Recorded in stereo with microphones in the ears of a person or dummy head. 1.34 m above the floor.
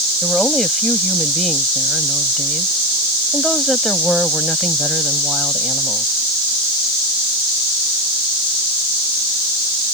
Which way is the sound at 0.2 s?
Centre (ahead or behind).